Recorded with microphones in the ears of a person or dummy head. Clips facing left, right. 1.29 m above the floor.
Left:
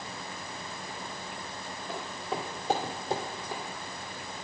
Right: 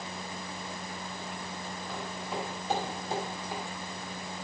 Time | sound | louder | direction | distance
1.9 | footsteps | left 3 dB | 25° left (ahead or behind) | 1.7 m